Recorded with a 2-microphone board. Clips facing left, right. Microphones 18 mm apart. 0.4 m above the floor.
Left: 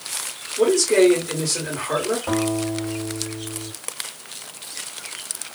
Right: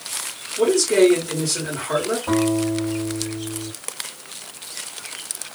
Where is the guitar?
45° left (ahead or behind), 1.8 m.